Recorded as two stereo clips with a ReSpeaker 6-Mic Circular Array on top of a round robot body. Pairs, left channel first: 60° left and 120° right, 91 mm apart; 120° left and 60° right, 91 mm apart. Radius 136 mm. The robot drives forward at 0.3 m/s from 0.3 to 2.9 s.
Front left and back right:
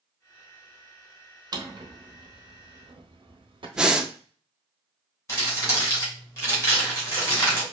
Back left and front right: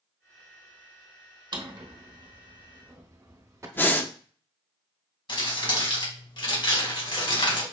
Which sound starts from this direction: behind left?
Crumpling, at 5.3 s.